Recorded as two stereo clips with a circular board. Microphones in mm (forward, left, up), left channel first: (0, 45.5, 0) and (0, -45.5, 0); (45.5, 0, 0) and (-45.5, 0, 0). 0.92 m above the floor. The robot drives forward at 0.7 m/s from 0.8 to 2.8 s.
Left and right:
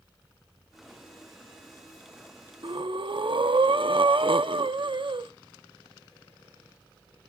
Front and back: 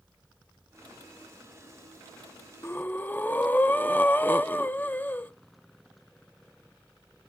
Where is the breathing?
60° right, 0.7 m; by 5.3 s 70° right, 0.6 m.